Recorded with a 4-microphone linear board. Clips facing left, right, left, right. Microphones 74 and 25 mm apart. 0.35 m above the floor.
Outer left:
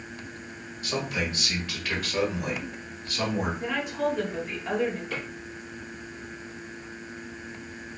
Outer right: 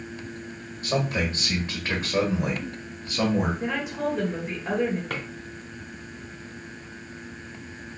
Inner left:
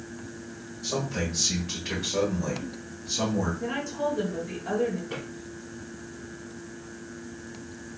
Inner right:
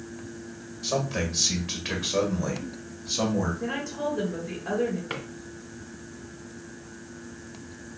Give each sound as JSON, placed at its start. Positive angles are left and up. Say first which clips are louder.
{"t": 0.8, "sound": "a man speaking", "louder": "outer right 4 dB, inner right 2 dB", "side_deg": -35, "distance_m": 1.9}
{"t": 3.6, "sound": "a woman speaking", "louder": "even, inner left 1 dB", "side_deg": -15, "distance_m": 1.5}
{"t": 5.1, "sound": "a drawer", "louder": "outer right 1 dB, inner right 1 dB", "side_deg": -70, "distance_m": 1.1}